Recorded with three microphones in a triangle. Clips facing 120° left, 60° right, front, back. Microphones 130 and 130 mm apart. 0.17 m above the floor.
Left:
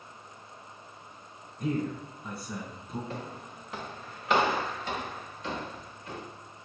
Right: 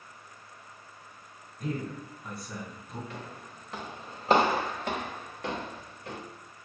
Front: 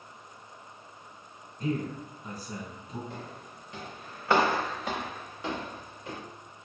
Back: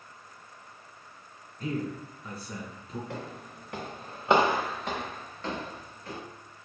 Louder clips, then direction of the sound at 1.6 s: Left 4 dB, front 1 dB; 45° left.